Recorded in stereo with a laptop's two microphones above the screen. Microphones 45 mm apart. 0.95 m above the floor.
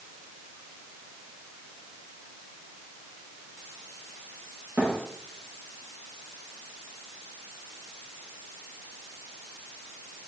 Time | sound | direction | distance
4.8 | a thud | 45° right (ahead or behind) | 5 m